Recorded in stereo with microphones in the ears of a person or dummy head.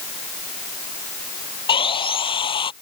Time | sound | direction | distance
1.7 | sawing | 25° left (ahead or behind) | ?